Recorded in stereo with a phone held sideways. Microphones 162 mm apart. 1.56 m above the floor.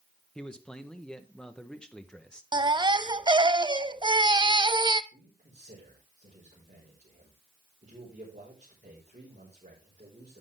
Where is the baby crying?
25° right (ahead or behind), 0.5 m.